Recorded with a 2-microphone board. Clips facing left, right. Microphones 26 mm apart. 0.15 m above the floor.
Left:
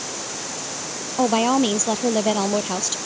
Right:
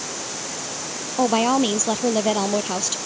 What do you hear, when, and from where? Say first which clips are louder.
1.2 s a woman speaking: even; 5° right (ahead or behind)